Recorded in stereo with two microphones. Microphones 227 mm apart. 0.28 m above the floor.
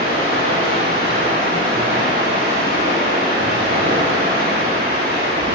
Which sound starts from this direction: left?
Running water, at 0.0 s.